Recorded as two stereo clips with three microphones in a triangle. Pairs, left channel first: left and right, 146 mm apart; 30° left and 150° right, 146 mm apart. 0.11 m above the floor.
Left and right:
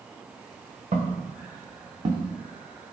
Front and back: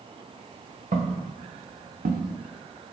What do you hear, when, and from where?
0.9 s footsteps: 125° right, 1.5 m; by 2.3 s 150° right, 1.0 m